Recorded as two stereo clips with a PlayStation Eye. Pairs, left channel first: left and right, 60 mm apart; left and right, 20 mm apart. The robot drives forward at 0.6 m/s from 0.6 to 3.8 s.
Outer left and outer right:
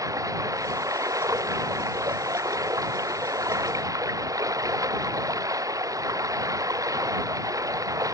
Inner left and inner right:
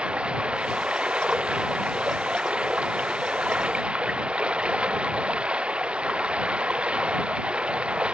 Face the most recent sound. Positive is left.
turn(degrees=-70)  # may be behind; listen again after turning